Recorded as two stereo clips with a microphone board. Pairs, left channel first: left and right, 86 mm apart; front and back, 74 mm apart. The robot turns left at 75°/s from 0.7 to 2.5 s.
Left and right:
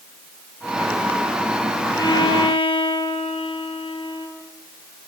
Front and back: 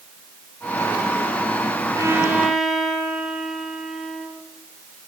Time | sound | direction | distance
2.0 | a violin | 135° left | 5.5 m